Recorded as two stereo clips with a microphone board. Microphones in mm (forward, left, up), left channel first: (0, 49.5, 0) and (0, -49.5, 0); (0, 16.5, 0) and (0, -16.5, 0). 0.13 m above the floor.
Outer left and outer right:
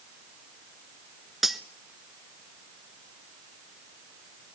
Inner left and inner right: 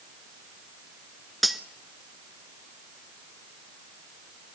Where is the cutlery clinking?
5° right (ahead or behind), 1.2 m.